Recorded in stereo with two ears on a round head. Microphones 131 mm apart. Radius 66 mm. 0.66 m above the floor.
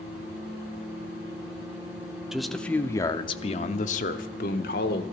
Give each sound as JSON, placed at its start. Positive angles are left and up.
{"t": 2.3, "sound": "a man speaking", "side_deg": -5, "distance_m": 0.9}